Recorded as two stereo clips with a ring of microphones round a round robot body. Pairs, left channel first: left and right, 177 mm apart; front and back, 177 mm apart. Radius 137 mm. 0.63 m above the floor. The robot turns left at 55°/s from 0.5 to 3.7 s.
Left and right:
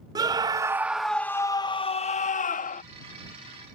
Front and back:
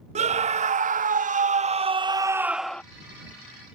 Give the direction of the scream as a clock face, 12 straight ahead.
5 o'clock.